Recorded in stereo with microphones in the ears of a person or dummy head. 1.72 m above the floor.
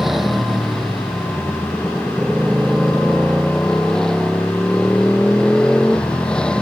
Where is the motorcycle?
5° right (ahead or behind); by 6.6 s 5° left (ahead or behind).